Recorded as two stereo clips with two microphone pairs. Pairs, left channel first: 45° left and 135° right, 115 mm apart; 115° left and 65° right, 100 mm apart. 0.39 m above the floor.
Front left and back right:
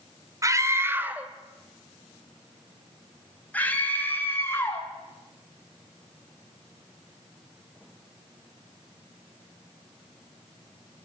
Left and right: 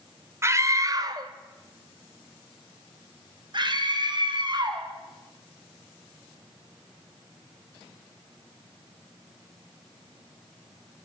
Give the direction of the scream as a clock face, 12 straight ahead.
3 o'clock.